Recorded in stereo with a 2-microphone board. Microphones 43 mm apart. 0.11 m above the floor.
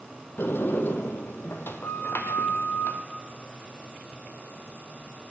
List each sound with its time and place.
0.4 s a sliding door: 70° left (ahead or behind), 1.7 m